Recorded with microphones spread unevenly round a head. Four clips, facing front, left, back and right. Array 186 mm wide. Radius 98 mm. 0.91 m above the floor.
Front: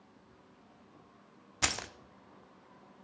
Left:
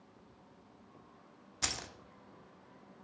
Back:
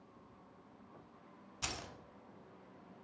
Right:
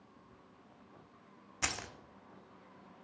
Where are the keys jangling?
10° right, 0.5 m.